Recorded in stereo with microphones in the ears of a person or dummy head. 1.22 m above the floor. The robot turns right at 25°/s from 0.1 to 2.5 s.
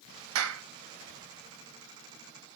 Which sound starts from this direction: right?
A clap, at 0.3 s.